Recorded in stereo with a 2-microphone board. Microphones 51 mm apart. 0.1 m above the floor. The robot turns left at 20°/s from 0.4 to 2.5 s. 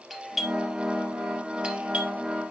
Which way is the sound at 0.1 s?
Centre (ahead or behind).